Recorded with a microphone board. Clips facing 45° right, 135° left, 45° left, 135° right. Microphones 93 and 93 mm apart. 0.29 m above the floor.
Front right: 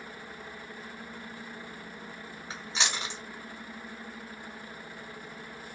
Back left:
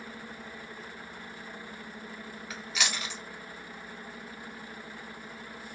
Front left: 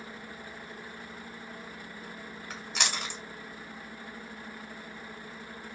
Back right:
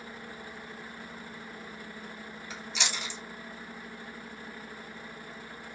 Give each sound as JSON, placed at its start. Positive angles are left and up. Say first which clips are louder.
{"t": 2.5, "sound": "chewing", "louder": "front right 1 dB, front left 2 dB", "azimuth_deg": 15, "distance_m": 1.4}